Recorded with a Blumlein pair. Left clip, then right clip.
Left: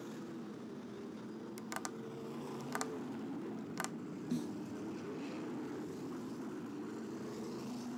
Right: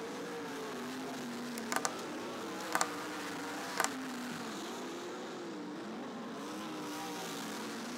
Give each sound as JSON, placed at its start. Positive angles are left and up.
{"t": 1.6, "sound": "tapping", "azimuth_deg": -65}
{"t": 4.3, "sound": "a snare drum", "azimuth_deg": 15}